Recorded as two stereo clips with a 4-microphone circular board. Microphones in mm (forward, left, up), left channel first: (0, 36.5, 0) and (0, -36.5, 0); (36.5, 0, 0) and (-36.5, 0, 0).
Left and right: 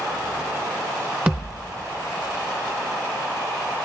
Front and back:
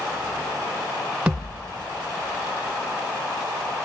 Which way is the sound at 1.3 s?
125° right.